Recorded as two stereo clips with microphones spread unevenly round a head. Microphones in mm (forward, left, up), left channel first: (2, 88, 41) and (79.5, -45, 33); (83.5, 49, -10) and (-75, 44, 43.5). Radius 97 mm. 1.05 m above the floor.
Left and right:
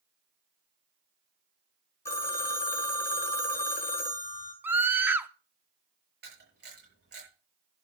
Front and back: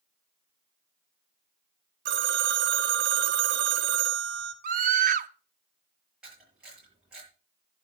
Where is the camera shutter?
95° right, 7 m.